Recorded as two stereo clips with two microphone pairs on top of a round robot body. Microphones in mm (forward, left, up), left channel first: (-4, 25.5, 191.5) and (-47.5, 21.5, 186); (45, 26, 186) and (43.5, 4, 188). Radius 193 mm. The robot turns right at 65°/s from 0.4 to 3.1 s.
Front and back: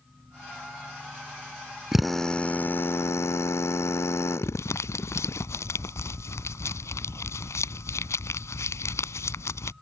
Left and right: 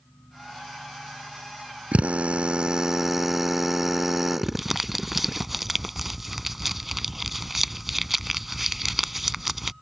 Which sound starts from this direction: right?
A drill, at 1.9 s.